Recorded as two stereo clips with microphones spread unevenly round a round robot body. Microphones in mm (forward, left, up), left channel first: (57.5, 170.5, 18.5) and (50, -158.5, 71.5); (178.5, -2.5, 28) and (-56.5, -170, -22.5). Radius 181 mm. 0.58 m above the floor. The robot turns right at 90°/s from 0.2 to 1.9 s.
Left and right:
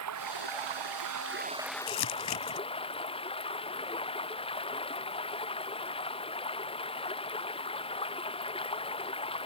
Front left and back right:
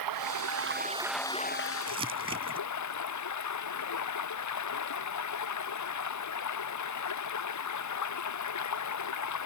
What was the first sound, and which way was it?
Running water, 140° right.